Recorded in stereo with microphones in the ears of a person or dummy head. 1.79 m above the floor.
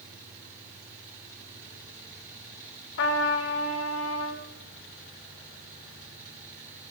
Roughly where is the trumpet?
Left.